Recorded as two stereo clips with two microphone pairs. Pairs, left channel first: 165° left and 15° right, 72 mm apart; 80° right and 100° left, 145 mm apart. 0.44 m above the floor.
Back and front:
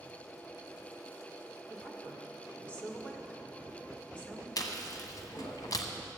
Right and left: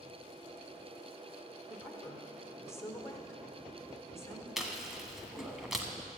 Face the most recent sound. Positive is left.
turn(degrees=-170)